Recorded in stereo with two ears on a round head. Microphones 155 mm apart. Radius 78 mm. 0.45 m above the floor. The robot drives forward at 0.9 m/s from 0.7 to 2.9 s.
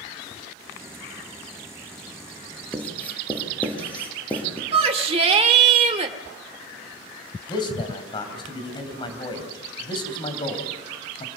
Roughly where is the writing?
Centre.